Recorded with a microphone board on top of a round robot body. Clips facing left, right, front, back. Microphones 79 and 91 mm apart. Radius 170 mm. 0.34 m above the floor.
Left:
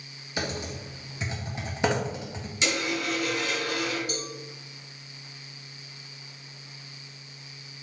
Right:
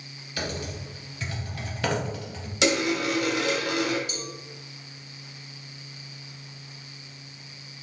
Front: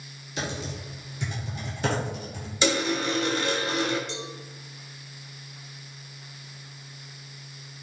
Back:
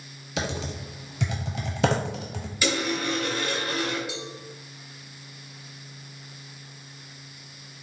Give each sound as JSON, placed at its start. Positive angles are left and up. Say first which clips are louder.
{"t": 0.4, "sound": "typing on a keyboard", "louder": "even, back 2 dB", "azimuth_deg": 165, "distance_m": 0.6}
{"t": 2.6, "sound": "a dropped coin", "louder": "right 5 dB, front 2 dB", "azimuth_deg": -65, "distance_m": 1.1}
{"t": 4.1, "sound": "a cowbell", "louder": "left 2 dB, even", "azimuth_deg": 100, "distance_m": 1.1}